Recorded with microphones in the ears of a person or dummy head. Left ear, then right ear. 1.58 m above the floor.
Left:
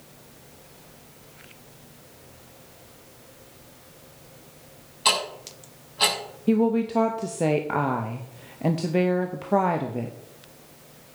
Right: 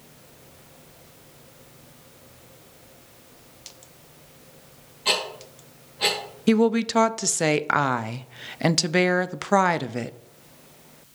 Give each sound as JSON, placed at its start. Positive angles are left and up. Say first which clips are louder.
{"t": 5.0, "sound": "ticking", "louder": "left 1 dB", "side_deg": 70, "distance_m": 4.5}
{"t": 6.5, "sound": "a woman speaking", "louder": "right 2 dB", "side_deg": -65, "distance_m": 0.6}